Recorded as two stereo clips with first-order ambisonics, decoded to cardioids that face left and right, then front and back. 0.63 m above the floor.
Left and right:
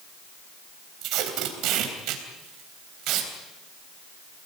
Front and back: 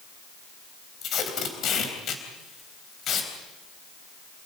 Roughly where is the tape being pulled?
Ahead right.